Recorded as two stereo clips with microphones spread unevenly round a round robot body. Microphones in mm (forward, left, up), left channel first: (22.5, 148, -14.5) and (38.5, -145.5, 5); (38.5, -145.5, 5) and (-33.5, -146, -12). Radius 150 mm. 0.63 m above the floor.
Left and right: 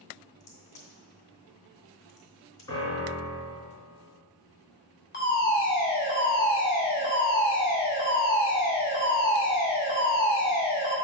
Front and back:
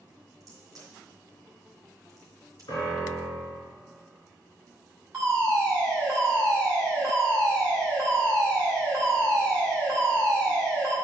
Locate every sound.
0.4 s a crack: 155° left, 1.8 m
2.7 s a piano: 15° left, 3 m
5.1 s a fire alarm: 130° left, 2 m